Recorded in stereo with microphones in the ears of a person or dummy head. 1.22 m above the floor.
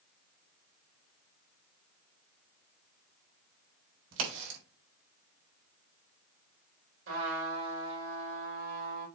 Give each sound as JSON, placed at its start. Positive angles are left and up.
{"t": 4.1, "sound": "a crack", "side_deg": -80, "distance_m": 4.0}
{"t": 7.1, "sound": "a trumpet", "side_deg": -80, "distance_m": 4.5}